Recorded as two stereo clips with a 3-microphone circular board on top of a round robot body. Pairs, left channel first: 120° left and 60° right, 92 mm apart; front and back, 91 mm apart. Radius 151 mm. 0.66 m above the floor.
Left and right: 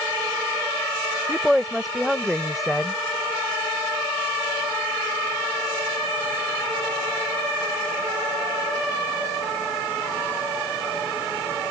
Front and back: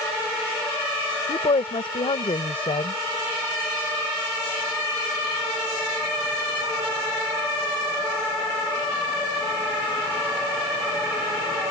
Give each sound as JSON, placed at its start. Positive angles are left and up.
{"t": 1.3, "sound": "a woman speaking", "azimuth_deg": 30}